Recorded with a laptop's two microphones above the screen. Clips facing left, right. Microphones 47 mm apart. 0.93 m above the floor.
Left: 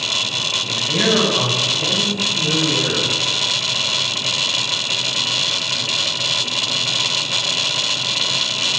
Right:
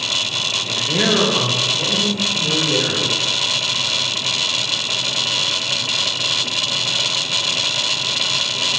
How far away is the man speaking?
About 2 m.